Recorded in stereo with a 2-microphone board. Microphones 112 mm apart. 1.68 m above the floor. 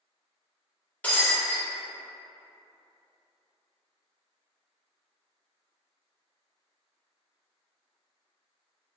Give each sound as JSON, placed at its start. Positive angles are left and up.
{"t": 1.0, "sound": "breaking glass", "side_deg": 15, "distance_m": 1.6}